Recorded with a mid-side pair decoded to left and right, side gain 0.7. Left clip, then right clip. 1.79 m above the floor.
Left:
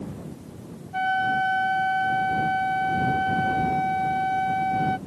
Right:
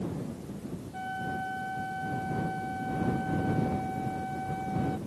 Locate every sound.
0.9 s a flute: 50° left